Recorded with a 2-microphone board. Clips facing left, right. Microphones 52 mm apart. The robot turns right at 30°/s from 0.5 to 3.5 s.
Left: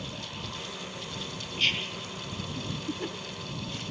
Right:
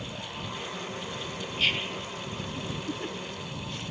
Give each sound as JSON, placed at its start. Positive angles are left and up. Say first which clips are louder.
{"t": 1.6, "sound": "whispering", "louder": "right 1 dB", "side_deg": -5}